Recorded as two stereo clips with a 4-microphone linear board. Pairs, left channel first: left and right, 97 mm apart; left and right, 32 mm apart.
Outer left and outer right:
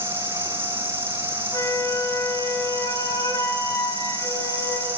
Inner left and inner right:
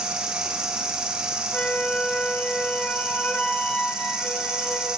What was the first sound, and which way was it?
An insect, 25° right (ahead or behind).